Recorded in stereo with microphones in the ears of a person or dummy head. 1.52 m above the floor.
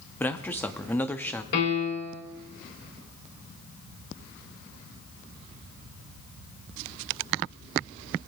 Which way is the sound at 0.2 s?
10° left (ahead or behind).